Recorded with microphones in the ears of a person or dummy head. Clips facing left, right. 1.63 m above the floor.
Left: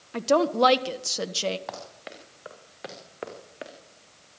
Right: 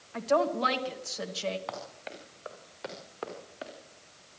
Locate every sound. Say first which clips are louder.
0.1 s a woman speaking: left 5 dB; 70° left (ahead or behind), 1.5 m
1.7 s running footsteps: left 1 dB; centre (ahead or behind), 5.5 m; by 3.7 s 30° left (ahead or behind), 5.5 m